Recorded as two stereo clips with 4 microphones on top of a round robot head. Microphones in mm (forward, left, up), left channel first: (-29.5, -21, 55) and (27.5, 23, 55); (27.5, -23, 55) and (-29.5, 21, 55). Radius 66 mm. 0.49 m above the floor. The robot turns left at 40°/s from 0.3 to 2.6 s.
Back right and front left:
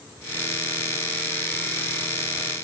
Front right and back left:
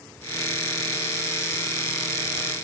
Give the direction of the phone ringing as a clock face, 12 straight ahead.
No phone ringing in this recording.